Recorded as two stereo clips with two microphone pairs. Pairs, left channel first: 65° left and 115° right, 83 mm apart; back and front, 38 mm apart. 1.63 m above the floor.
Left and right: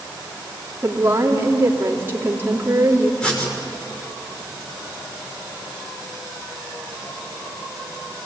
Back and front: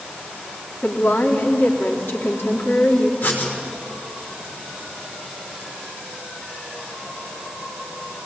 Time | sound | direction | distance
0.8 | a woman speaking | straight behind | 3.5 m
3.2 | writing | 140° left | 6 m